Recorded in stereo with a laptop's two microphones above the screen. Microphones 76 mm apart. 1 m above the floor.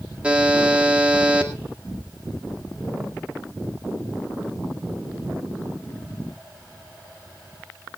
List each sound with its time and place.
0.2 s a buzzer: 15° right (ahead or behind), 2 m